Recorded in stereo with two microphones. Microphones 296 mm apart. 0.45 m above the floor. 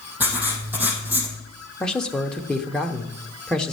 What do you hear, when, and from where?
0.2 s writing: 5° right (ahead or behind), 3 m
1.8 s a man speaking: 5° left (ahead or behind), 0.8 m